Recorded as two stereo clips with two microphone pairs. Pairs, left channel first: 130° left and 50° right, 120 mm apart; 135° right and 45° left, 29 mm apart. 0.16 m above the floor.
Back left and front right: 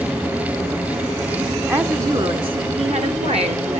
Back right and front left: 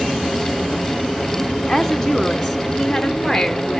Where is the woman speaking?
55° right, 1.1 m.